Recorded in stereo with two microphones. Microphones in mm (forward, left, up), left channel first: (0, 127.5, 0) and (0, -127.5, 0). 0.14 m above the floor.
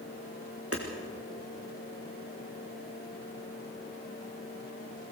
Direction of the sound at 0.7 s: 60° right (ahead or behind).